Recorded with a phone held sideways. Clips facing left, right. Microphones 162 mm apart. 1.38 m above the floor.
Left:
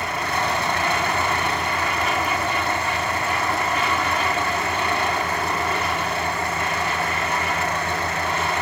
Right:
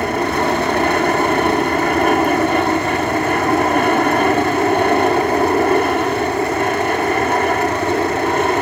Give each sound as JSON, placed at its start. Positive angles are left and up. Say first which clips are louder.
{"t": 0.0, "sound": "an aircraft", "louder": "right 8 dB", "side_deg": -55}